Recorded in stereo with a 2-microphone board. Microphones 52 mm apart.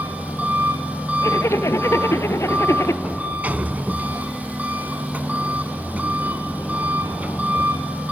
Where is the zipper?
70° left (ahead or behind), 0.9 m.